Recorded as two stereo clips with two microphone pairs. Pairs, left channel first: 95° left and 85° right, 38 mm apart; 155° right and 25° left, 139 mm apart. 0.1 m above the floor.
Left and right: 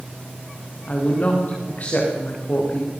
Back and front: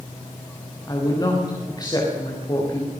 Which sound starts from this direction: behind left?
A woman speaking, at 0.9 s.